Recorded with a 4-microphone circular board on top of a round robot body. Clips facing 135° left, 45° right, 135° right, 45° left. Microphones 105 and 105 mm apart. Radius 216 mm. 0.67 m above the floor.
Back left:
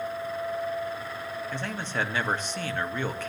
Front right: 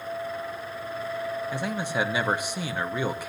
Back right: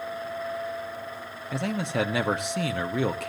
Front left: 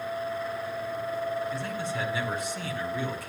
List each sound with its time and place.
1.5 s a man speaking: 120° right, 1.5 m